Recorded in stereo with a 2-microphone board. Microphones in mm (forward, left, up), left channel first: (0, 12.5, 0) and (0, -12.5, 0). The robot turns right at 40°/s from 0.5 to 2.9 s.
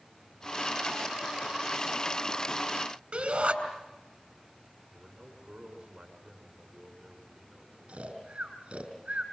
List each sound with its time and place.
3.1 s a shout: 35° right (ahead or behind), 5 m
4.9 s a man speaking: 25° right (ahead or behind), 7 m
7.9 s snoring: 45° right (ahead or behind), 5 m